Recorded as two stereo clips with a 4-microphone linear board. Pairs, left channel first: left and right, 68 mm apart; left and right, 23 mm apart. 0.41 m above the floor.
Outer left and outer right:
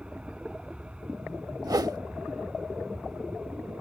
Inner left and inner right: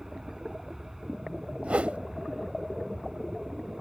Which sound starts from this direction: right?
A whoosh, at 1.6 s.